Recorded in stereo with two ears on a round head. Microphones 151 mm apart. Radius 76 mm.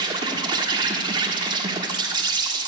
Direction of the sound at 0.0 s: 25° right (ahead or behind).